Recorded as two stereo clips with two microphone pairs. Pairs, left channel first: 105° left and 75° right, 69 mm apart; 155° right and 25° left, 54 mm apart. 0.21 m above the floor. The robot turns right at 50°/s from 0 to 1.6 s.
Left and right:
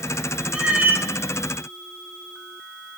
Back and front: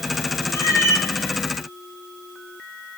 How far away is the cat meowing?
About 0.5 m.